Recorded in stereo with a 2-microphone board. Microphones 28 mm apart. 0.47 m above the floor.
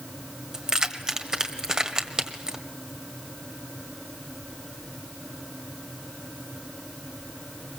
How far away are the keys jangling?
About 1.6 m.